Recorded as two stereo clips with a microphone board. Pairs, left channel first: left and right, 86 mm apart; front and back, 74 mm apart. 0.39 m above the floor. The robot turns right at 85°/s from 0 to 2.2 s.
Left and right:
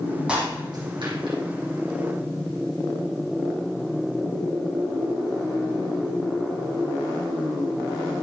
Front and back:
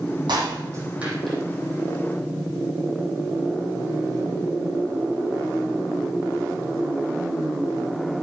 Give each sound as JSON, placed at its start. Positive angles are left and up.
{"t": 0.3, "sound": "breaking glass", "azimuth_deg": -170, "distance_m": 5.5}